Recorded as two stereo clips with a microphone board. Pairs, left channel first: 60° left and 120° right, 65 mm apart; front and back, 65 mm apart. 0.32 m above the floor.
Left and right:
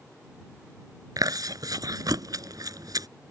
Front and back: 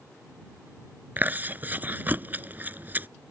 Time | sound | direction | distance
1.2 | chewing | 120° right | ?